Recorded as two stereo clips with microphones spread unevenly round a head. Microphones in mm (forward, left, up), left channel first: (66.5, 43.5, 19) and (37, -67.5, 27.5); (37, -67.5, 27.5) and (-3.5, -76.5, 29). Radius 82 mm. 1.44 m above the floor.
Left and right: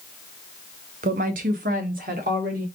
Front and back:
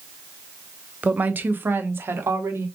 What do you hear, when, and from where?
1.0 s a woman speaking: 115° right, 0.7 m; by 2.6 s 150° right, 1.6 m